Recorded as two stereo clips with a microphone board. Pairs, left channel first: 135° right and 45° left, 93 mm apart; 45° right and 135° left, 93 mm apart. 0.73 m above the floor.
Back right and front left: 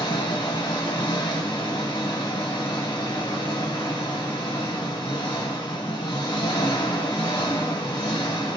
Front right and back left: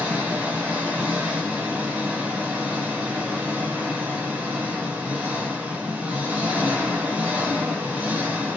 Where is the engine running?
155° right, 1.1 m.